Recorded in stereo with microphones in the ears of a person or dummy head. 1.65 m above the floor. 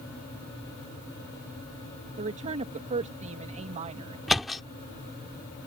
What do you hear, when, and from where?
2.2 s a woman speaking: 35° right (ahead or behind)
4.3 s a thud: centre (ahead or behind)